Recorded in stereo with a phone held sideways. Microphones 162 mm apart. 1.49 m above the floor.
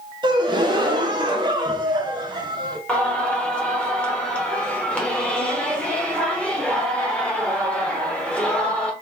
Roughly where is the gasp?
Right.